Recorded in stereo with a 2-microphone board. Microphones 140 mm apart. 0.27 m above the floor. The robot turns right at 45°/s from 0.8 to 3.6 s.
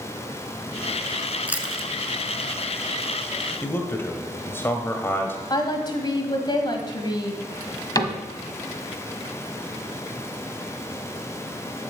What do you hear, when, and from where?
1.5 s chewing: 15° right (ahead or behind), 1.0 m; by 1.9 s 5° left (ahead or behind), 1.0 m
3.6 s a man speaking: 15° left (ahead or behind), 1.3 m
5.5 s a woman speaking: 30° left (ahead or behind), 1.8 m
8.0 s a cupboard door: 30° left (ahead or behind), 1.3 m